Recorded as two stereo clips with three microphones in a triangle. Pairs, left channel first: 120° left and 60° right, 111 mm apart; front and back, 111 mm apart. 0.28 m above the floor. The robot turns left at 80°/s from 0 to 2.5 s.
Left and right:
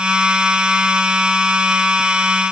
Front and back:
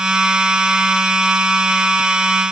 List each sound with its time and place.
Only background noise.